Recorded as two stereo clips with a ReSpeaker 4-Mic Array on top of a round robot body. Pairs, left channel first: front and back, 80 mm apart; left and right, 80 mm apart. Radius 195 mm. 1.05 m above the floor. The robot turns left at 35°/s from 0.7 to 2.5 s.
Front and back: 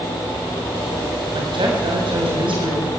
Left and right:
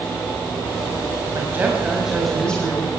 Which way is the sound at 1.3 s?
150° right.